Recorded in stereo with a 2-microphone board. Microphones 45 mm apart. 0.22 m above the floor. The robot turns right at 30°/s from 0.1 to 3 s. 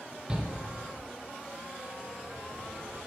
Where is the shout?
10° right (ahead or behind), 4.5 m; by 0.5 s 15° right (ahead or behind), 4.5 m.